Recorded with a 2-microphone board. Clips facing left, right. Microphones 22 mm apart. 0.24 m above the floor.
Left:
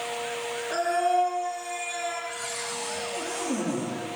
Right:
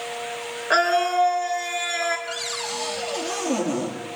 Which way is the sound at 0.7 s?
50° right (ahead or behind).